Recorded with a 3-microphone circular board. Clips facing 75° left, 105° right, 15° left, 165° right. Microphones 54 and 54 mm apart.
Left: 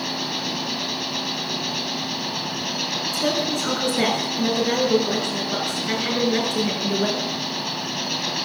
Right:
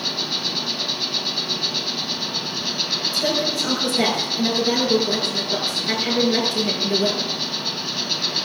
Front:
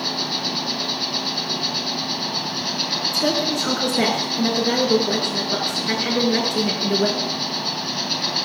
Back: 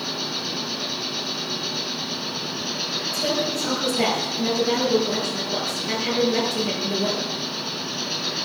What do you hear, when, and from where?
0.0 s an insect: 15° left, 3 m
3.1 s a woman speaking: 5° right, 6 m